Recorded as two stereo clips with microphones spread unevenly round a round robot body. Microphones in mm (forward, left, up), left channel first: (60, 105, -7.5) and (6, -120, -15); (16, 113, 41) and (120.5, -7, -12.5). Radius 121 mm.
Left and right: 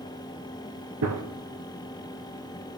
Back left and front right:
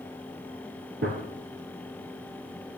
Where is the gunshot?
90° right, 2.5 m.